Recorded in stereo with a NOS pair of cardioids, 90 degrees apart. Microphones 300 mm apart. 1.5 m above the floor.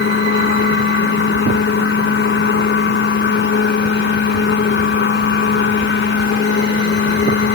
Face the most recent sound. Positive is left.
turn(degrees=40)